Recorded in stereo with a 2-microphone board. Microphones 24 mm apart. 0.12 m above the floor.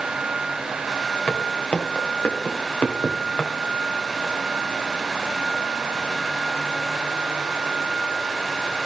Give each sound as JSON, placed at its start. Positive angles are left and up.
{"t": 1.3, "sound": "footsteps", "side_deg": 85, "distance_m": 3.5}